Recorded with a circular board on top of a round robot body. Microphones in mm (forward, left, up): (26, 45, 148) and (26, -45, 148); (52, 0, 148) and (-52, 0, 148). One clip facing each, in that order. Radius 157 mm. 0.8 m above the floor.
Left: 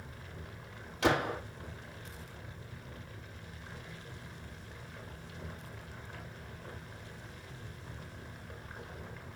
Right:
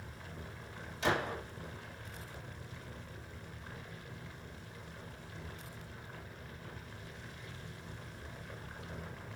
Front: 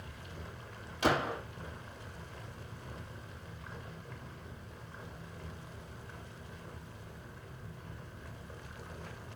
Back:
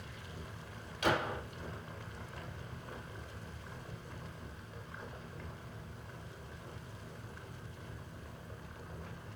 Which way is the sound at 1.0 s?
60° left.